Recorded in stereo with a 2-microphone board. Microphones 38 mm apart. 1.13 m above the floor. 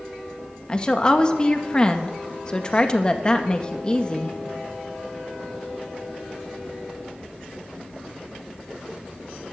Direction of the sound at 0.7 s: 20° left (ahead or behind).